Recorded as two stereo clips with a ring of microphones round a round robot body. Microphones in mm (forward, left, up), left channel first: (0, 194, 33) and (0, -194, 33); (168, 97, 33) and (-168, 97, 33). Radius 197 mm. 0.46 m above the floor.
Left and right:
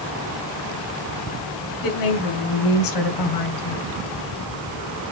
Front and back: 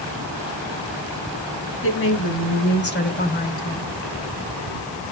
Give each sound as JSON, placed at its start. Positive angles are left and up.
{"t": 1.8, "sound": "a woman speaking", "azimuth_deg": 50, "distance_m": 3.0}